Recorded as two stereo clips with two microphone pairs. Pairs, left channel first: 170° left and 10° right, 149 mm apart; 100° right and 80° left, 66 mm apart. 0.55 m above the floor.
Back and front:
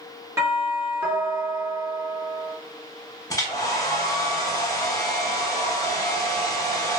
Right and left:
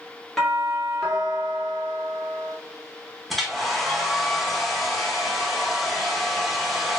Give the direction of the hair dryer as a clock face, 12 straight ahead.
6 o'clock.